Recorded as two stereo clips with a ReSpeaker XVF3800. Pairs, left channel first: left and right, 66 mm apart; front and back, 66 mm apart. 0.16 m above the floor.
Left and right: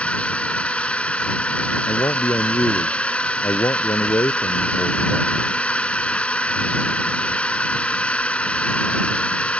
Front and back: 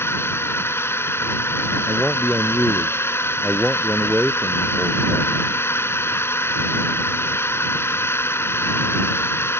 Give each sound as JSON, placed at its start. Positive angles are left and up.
{"t": 0.0, "sound": "a drone", "azimuth_deg": 25}
{"t": 1.9, "sound": "a man speaking", "azimuth_deg": 95}